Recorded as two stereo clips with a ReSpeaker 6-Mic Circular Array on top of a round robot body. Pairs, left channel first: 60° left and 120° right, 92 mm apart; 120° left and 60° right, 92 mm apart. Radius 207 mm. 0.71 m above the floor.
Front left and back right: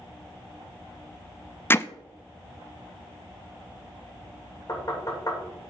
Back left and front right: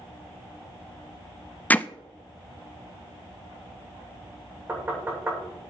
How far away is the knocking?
About 3.5 m.